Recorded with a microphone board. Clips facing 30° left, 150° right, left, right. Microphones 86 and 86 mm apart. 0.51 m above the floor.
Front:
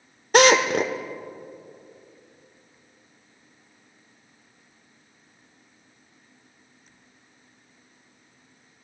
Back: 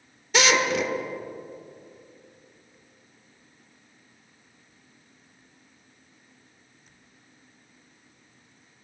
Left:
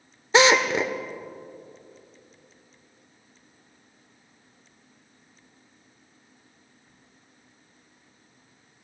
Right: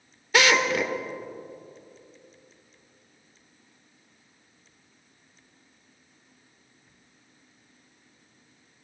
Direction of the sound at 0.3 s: 35° left.